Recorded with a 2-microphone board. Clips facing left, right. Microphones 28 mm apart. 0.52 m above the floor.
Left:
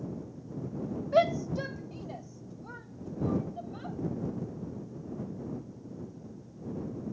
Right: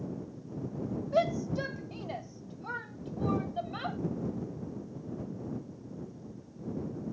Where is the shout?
30° left (ahead or behind); by 4.0 s 70° right (ahead or behind).